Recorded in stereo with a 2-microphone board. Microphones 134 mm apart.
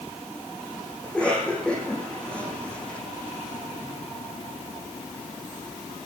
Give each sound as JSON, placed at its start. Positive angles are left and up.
{"t": 1.0, "sound": "a cough", "side_deg": 5, "distance_m": 6.5}